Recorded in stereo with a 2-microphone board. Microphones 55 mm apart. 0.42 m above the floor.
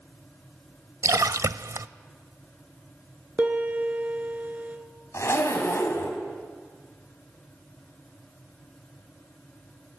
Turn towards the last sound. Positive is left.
turn(degrees=60)  # may be behind; listen again after turning